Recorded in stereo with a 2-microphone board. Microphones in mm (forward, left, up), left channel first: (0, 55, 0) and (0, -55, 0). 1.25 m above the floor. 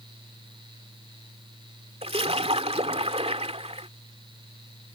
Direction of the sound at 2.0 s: 65° right (ahead or behind).